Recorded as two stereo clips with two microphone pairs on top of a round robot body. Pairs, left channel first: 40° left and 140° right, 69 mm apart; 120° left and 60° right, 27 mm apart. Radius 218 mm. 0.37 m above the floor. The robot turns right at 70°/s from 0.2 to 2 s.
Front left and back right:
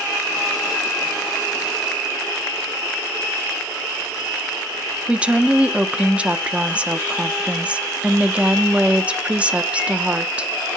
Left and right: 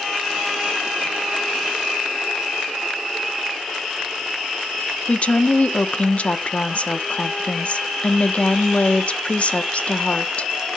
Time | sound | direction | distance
5.1 | a woman speaking | 135° left | 1.1 m